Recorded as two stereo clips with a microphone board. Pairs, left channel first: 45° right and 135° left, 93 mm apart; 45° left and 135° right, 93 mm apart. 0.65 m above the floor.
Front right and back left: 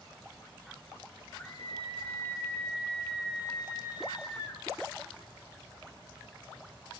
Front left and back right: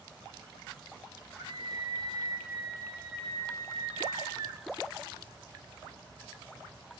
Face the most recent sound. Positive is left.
turn(degrees=-95)